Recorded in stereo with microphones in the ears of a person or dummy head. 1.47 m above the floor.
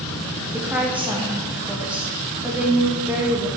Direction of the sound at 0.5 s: 10° right (ahead or behind).